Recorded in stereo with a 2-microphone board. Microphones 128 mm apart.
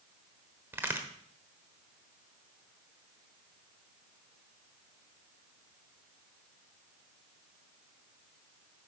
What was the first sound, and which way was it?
A crack, 15° right (ahead or behind).